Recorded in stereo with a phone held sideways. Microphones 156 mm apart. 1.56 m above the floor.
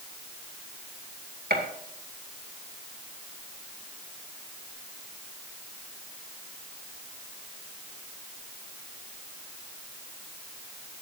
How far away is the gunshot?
About 2.5 m.